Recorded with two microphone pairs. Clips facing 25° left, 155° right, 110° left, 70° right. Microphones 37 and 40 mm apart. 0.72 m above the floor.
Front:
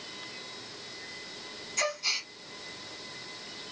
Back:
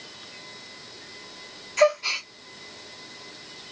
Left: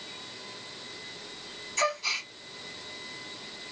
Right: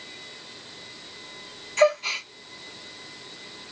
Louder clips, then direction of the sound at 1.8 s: Back 11 dB, right 8 dB; 115° right.